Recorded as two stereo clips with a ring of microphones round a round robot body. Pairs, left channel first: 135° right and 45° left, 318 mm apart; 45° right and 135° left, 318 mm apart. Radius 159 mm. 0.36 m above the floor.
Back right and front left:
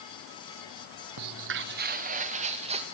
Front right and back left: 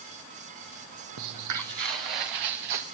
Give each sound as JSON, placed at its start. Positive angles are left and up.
{"t": 1.2, "sound": "footsteps", "azimuth_deg": 85, "distance_m": 0.9}